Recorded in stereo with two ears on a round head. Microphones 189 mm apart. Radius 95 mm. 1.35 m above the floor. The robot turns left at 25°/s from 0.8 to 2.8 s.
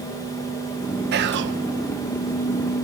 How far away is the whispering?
About 1.0 m.